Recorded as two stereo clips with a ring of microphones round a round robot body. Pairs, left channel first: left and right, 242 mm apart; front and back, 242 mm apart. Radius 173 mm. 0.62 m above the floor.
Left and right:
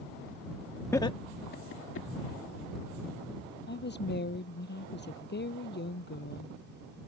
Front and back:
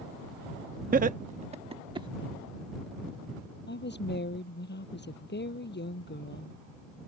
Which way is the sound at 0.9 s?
165° left.